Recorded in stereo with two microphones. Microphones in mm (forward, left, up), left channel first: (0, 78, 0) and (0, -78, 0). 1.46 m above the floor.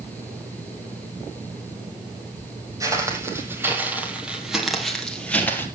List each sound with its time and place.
2.8 s footsteps: 20° right (ahead or behind), 3.5 m; by 5.7 s 15° left (ahead or behind), 2.5 m